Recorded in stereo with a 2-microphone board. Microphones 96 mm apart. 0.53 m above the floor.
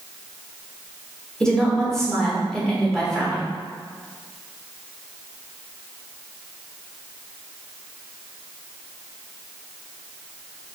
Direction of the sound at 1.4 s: 5° left (ahead or behind).